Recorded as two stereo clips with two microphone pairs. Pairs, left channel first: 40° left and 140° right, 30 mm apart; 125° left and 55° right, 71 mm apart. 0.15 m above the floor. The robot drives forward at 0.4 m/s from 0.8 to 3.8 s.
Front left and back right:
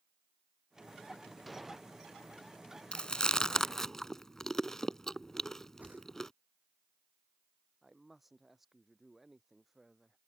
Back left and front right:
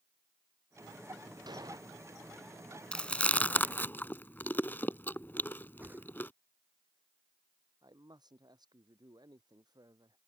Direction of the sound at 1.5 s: 50° right.